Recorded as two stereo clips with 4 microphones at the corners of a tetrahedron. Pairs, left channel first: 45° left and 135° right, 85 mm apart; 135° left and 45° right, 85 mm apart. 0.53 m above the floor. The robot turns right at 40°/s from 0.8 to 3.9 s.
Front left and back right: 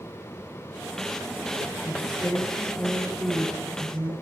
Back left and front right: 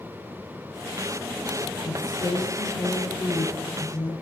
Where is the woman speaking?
80° left, 9 m; by 4.1 s 165° left, 9 m.